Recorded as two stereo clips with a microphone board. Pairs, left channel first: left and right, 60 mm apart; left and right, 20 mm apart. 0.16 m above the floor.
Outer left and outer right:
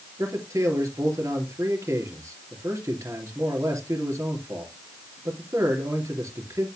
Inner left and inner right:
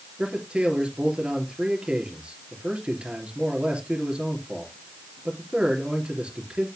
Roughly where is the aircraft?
No aircraft in this recording.